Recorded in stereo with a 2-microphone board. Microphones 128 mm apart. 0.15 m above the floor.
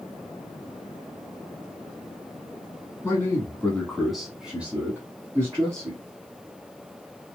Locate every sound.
3.0 s a man speaking: 20° left (ahead or behind), 1.2 m; by 6.0 s 30° right (ahead or behind), 1.5 m